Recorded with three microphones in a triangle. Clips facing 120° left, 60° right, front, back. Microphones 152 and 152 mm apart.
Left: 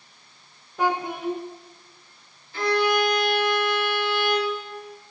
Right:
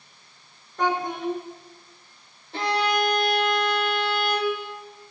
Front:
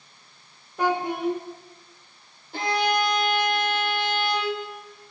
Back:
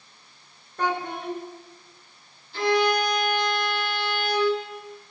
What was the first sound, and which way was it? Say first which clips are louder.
A child speaking: even, front 4 dB; 55° left.